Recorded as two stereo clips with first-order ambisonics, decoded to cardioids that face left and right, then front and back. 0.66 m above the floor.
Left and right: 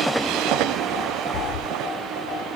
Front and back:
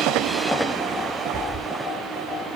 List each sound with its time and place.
1.3 s a cat meowing: 95° left, 0.7 m